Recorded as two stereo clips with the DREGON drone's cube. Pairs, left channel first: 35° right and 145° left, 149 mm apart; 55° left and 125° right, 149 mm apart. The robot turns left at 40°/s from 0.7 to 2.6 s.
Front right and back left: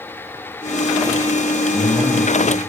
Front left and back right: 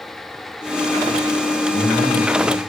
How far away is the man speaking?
About 4 m.